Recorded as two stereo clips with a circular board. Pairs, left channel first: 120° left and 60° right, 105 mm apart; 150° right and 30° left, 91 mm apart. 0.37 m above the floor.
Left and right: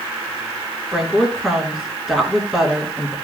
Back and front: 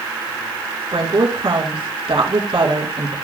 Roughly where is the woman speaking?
Ahead left.